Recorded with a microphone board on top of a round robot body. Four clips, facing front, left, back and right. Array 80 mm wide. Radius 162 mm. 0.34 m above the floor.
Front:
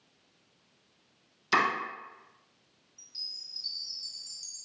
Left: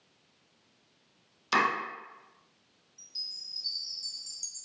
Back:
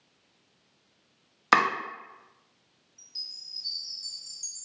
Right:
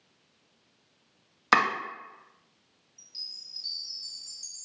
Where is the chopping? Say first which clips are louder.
Right 4 dB, back 4 dB; 145° right, 0.7 m.